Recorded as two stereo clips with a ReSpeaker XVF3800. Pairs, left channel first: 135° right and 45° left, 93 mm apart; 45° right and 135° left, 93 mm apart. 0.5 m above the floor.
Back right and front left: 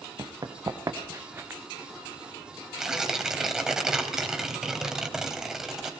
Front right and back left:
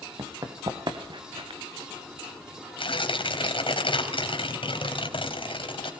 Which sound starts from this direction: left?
Running footsteps, at 0.2 s.